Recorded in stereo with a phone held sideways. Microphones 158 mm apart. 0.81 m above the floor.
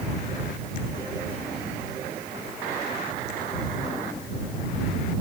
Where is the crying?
I don't hear crying.